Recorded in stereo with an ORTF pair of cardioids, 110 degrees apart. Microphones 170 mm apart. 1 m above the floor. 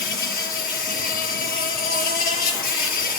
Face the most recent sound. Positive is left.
turn(degrees=60)